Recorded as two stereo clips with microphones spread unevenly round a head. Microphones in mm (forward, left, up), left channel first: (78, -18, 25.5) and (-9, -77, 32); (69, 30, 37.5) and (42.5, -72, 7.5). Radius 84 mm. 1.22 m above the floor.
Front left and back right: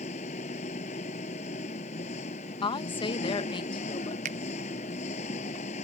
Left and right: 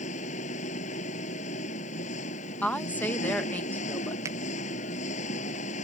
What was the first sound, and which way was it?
An engine running, 75° left.